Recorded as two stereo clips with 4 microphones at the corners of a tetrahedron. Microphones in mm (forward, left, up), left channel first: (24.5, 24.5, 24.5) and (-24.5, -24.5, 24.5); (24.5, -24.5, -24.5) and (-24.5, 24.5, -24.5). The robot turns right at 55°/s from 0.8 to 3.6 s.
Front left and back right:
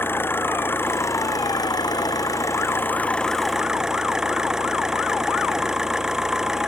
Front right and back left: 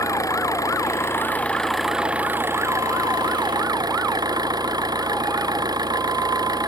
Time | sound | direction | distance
0.0 | an engine running | 10° right | ?